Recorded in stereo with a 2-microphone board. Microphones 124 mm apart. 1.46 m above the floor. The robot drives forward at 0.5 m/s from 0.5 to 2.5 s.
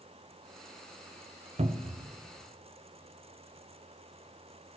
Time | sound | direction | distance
1.6 | a cupboard door | 65° right (ahead or behind) | 0.5 m